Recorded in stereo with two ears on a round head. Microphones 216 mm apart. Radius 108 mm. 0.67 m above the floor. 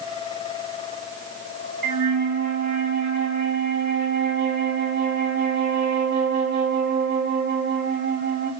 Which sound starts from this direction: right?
A flute, at 1.8 s.